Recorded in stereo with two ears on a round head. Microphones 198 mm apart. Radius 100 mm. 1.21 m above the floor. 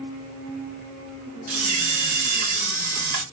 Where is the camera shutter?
40° right (ahead or behind), 1.5 m.